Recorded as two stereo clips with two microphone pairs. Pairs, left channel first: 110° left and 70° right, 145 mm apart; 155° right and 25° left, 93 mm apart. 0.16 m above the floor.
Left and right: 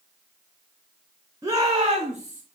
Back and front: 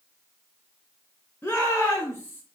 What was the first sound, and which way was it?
A shout, 115° right.